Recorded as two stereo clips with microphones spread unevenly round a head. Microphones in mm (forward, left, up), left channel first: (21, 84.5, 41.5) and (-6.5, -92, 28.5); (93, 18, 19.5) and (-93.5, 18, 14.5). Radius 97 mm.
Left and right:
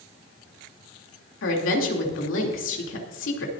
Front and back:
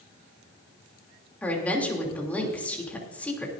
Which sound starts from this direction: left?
A woman speaking, at 1.4 s.